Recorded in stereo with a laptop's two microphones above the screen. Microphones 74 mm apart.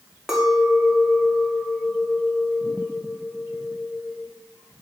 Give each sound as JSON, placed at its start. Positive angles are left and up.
{"t": 0.3, "sound": "a clink", "side_deg": -10, "distance_m": 1.6}